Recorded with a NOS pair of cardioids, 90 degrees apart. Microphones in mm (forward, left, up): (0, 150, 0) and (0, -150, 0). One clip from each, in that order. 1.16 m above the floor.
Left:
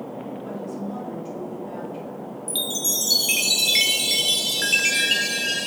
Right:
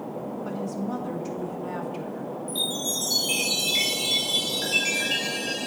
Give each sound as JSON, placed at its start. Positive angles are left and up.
{"t": 0.5, "sound": "a woman speaking", "azimuth_deg": -50, "distance_m": 1.4}
{"t": 2.5, "sound": "a chime", "azimuth_deg": 55, "distance_m": 0.9}